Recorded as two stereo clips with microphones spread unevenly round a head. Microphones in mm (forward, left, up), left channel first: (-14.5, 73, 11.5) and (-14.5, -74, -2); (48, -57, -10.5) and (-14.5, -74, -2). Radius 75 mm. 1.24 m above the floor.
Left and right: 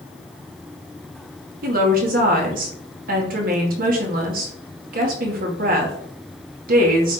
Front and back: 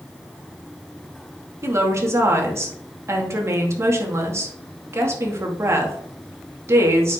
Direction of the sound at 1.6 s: 120° right.